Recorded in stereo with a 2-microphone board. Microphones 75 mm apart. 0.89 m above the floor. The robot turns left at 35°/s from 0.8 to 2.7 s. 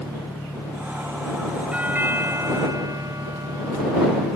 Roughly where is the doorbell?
Ahead.